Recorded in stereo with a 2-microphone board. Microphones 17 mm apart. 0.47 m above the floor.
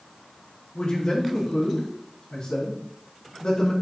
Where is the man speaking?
65° left (ahead or behind), 4 m.